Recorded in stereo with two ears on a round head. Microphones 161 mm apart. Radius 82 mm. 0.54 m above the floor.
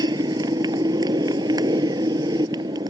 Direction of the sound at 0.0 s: 20° right (ahead or behind).